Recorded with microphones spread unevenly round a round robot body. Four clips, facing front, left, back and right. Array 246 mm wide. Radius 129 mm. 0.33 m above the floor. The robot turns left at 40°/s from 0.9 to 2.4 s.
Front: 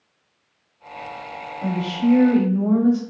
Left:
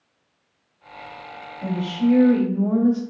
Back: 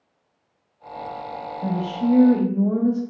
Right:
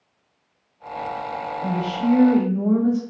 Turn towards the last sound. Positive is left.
turn(degrees=-5)